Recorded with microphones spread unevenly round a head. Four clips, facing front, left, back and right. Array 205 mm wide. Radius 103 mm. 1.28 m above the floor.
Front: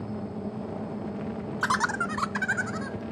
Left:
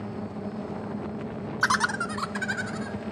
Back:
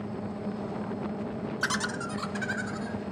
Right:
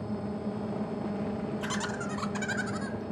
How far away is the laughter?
About 0.6 m.